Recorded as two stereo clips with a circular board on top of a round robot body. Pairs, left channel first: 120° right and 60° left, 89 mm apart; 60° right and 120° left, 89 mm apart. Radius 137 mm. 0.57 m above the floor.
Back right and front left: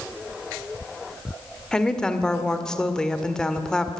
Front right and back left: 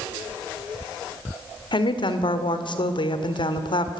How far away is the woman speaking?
About 1.8 m.